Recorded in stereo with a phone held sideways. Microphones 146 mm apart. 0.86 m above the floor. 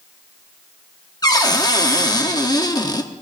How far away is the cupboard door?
About 0.9 m.